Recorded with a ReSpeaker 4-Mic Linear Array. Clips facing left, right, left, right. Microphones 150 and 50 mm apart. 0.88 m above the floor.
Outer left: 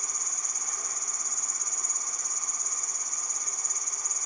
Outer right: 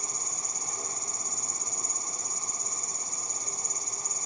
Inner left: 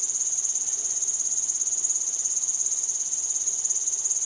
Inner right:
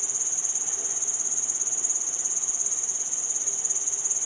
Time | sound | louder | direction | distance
0.0 | an insect | outer right 3 dB, inner right 4 dB | 30° right (ahead or behind) | ?